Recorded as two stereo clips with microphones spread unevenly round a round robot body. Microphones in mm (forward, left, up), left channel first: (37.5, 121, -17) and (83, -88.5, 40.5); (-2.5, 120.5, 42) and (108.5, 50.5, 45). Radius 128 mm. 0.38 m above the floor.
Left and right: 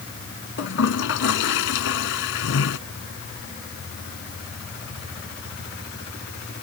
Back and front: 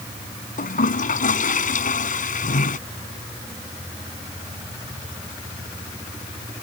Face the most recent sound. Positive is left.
turn(degrees=135)